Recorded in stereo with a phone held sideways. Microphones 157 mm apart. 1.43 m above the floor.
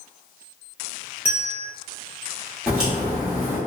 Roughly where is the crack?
Centre.